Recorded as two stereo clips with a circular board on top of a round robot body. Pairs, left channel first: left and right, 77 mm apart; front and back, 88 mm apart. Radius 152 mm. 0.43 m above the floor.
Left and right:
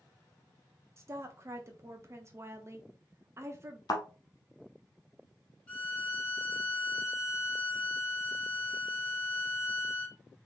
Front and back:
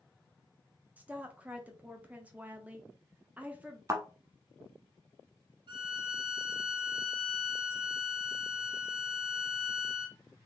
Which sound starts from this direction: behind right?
A woman speaking, at 1.0 s.